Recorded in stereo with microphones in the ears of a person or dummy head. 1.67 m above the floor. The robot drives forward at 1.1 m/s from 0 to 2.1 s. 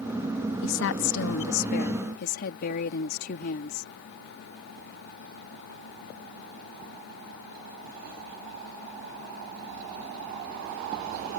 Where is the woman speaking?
75° left (ahead or behind); by 3.9 s 50° left (ahead or behind).